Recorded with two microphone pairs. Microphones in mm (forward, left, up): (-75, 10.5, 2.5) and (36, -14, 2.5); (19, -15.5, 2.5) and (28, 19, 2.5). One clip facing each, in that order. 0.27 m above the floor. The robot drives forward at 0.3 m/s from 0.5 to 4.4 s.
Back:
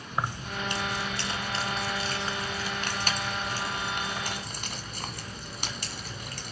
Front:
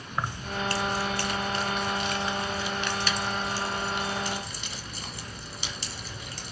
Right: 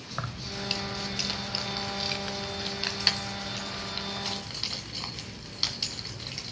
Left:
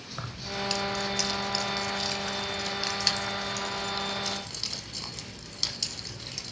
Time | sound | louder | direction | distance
0.1 | keys jangling | even, even | 145° right | 1.0 m